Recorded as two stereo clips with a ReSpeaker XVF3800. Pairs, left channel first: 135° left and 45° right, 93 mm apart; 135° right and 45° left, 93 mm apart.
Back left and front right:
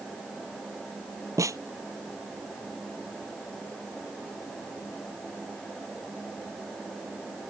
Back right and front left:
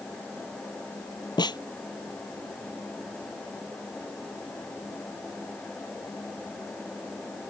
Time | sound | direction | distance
1.4 | a snare drum | 100° right | ?